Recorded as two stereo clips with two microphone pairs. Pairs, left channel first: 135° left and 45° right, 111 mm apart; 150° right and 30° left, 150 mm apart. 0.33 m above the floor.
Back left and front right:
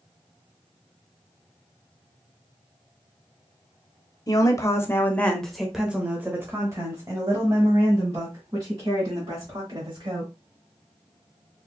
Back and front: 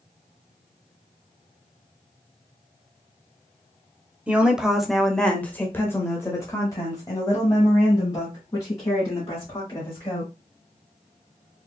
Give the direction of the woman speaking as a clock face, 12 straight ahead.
9 o'clock.